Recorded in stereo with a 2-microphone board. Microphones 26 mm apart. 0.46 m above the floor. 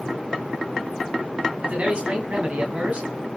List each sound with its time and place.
1.6 s a man speaking: 45° right (ahead or behind), 3 m